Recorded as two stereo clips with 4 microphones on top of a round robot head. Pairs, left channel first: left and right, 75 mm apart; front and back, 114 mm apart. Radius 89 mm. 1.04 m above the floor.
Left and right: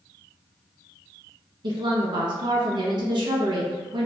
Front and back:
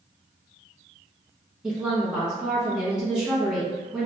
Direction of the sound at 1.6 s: 95° right.